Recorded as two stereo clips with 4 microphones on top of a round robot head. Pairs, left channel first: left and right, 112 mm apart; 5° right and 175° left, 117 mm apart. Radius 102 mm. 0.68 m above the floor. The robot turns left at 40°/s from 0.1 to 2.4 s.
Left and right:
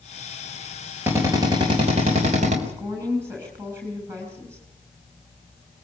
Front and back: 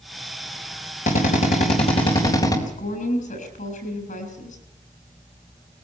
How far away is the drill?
About 4 m.